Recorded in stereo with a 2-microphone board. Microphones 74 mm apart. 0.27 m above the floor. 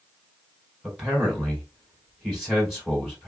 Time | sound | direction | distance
0.8 | a man speaking | 5° right (ahead or behind) | 2.5 m